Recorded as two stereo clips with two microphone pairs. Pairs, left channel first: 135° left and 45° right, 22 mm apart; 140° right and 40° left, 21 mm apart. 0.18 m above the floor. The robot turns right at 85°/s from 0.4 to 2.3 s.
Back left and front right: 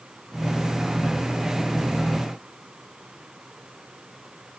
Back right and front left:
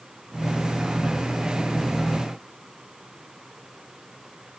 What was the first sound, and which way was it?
Only background noise.